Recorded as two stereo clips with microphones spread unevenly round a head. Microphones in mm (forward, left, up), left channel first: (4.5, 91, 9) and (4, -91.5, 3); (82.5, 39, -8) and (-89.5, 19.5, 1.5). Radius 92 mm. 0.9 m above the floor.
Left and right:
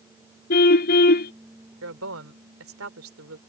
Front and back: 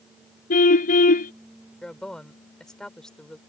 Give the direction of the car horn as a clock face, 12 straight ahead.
10 o'clock.